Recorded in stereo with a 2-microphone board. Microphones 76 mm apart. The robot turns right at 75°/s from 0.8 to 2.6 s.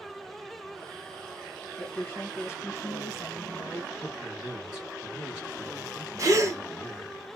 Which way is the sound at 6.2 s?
40° right (ahead or behind).